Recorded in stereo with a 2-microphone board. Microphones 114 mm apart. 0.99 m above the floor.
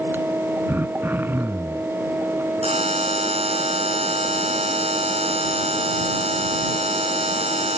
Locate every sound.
0.7 s throat clearing: 20° right (ahead or behind)
2.6 s a buzzer: 65° right (ahead or behind)